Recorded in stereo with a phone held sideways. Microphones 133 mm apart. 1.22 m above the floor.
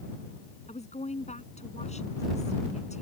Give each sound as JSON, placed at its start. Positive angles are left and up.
{"t": 0.7, "sound": "a woman speaking", "side_deg": 60}